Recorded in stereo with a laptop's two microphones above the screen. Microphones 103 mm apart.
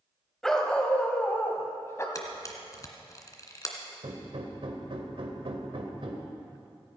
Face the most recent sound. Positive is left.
turn(degrees=-65)  # may be behind; listen again after turning